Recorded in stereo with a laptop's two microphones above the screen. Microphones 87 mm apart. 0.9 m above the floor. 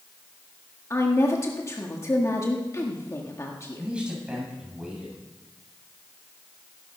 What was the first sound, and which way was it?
A woman speaking, 35° left (ahead or behind).